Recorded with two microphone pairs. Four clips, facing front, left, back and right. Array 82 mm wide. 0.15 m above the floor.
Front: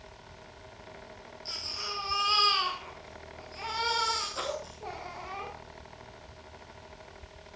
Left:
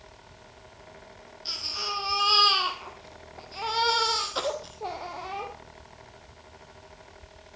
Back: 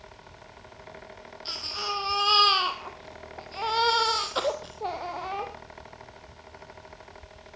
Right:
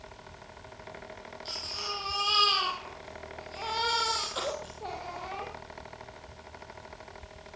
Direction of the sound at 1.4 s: 165° left.